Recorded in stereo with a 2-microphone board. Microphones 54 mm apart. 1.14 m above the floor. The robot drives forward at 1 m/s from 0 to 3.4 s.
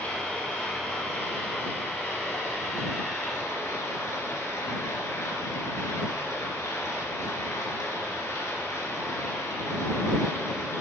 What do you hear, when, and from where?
0.0 s running water: 30° left (ahead or behind), 5 m; by 10.8 s 65° left (ahead or behind), 3 m